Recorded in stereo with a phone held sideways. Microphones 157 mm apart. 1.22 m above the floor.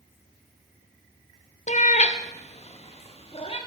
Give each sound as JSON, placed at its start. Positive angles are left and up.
{"t": 1.7, "sound": "a cat meowing", "side_deg": 50, "distance_m": 0.5}